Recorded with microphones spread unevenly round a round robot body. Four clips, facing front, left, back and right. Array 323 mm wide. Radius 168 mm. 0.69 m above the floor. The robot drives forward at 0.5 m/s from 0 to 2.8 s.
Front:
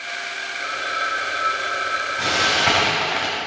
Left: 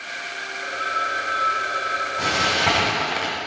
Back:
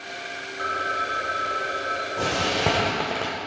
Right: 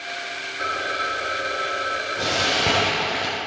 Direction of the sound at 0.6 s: 115° right.